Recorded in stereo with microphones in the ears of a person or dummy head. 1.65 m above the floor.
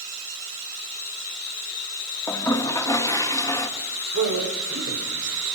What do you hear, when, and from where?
2.3 s a toilet flushing: 15° left (ahead or behind), 1.5 m
4.1 s a man speaking: 70° right (ahead or behind), 7 m